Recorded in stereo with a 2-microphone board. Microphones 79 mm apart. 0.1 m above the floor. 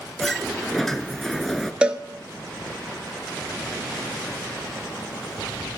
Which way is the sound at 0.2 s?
5° left (ahead or behind).